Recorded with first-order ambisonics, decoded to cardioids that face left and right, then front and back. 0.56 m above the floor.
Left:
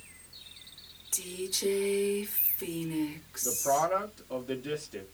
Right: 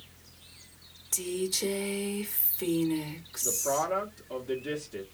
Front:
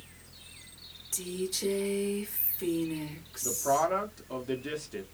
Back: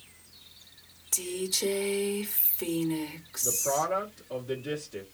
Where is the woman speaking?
135° right, 0.9 m.